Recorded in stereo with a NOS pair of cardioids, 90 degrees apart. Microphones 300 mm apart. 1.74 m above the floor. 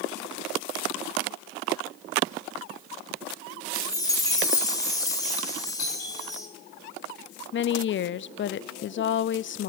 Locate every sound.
3.7 s a chime: 10° left, 2.5 m
5.8 s a doorbell: 50° left, 10 m
7.5 s a woman speaking: 40° left, 0.6 m